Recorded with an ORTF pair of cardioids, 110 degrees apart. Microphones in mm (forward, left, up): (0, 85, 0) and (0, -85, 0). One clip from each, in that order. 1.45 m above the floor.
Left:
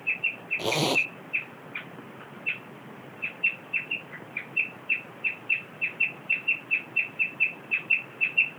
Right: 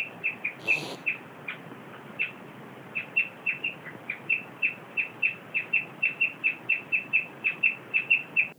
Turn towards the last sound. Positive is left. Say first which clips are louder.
# left 5 dB
turn(degrees=65)